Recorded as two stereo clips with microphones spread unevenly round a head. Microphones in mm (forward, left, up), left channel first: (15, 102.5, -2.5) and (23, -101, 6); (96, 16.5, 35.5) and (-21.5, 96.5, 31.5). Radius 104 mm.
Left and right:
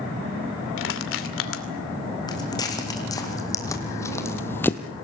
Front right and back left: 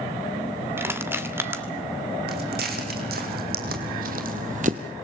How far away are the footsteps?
About 3.5 m.